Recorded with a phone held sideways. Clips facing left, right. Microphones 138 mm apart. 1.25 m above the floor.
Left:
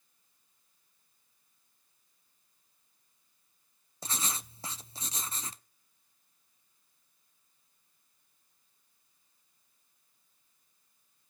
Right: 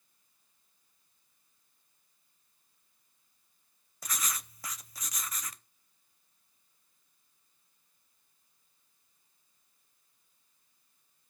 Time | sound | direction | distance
4.0 | writing | 30° left (ahead or behind) | 0.6 m